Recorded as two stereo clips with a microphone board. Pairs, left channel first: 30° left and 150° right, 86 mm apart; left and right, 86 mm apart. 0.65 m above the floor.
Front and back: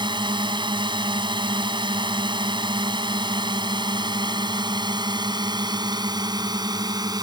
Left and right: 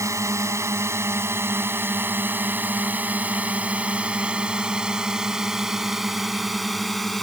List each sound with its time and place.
0.0 s a drone: 140° right; by 7.2 s 175° left